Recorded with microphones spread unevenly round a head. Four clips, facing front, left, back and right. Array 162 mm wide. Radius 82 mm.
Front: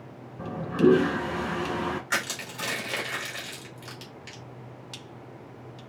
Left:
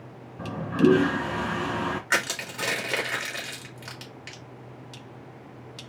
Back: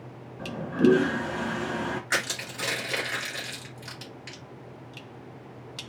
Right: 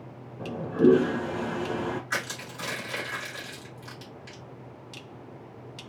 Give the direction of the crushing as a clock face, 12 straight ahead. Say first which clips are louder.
Left 5 dB, back 1 dB; 9 o'clock.